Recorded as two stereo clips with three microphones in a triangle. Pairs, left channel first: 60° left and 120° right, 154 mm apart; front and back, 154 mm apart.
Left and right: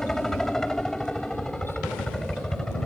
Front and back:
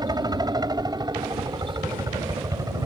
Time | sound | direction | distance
0.0 | a helicopter | 145° left | ?